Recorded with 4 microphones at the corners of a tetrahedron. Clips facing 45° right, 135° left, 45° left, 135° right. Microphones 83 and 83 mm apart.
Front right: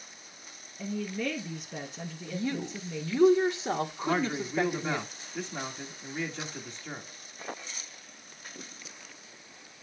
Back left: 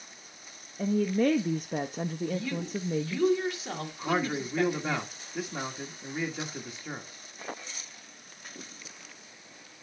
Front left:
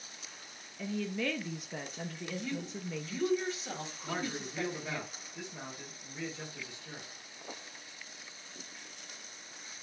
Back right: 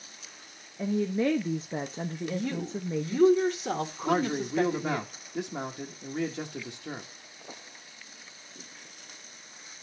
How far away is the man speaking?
About 1.3 m.